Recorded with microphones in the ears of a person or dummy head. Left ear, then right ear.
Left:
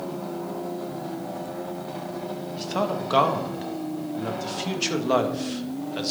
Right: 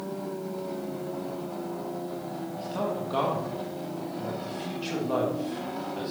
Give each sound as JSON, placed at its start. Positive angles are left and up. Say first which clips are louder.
{"t": 2.6, "sound": "a man speaking", "louder": "left 5 dB", "side_deg": 60, "distance_m": 2.0}